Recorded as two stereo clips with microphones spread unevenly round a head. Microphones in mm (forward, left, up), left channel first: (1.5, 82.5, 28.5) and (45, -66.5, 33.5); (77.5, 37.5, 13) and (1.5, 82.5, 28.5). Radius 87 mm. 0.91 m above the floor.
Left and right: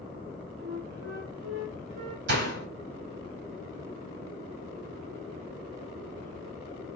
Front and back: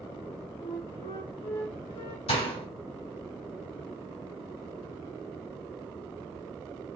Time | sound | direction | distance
0.6 | a flute | 65° right | 1.3 m
2.3 | a door slam | 55° right | 1.6 m